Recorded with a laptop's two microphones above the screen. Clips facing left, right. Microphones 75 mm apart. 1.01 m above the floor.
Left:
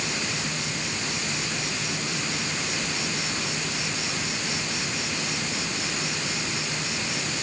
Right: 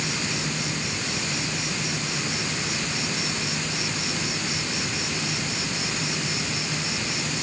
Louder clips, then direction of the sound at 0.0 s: Right 1 dB; 5° right (ahead or behind).